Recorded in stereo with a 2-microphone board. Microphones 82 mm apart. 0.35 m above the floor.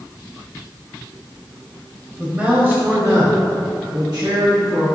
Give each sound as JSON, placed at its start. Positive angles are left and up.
{"t": 2.2, "sound": "a man speaking", "side_deg": -10, "distance_m": 1.7}